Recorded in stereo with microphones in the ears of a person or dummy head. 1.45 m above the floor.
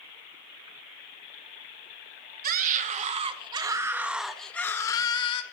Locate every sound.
2.4 s a scream: 50° right (ahead or behind), 1.2 m; by 5.4 s 30° left (ahead or behind), 1.1 m